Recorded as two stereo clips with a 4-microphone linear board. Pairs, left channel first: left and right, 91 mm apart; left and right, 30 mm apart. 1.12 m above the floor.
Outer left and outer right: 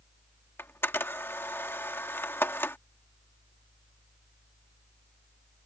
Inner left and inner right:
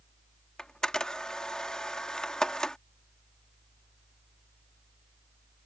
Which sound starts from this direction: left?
A camera shutter, at 0.6 s.